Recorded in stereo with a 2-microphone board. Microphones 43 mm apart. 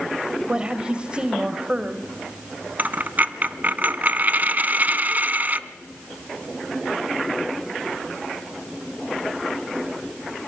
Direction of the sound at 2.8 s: 40° right (ahead or behind).